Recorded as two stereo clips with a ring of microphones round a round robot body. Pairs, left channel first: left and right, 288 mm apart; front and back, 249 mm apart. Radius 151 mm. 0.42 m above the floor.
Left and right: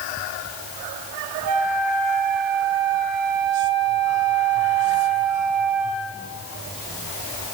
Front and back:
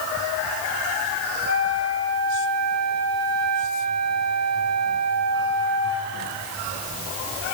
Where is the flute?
125° right, 3.5 m.